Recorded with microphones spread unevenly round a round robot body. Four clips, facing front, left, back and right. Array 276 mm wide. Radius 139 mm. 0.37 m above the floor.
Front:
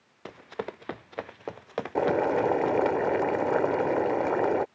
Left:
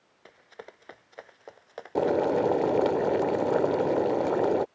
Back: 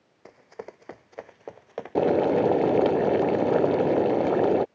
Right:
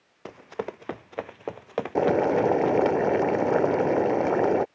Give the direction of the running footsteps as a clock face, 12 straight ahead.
2 o'clock.